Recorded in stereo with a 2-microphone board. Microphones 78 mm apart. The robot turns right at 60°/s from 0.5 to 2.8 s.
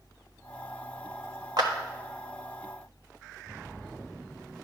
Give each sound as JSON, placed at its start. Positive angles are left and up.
{"t": 1.6, "sound": "a clap", "side_deg": -60, "distance_m": 1.3}